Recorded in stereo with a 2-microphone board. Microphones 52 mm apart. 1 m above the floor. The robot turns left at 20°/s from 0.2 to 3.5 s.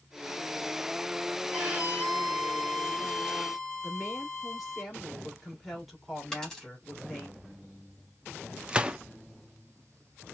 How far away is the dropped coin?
About 3 m.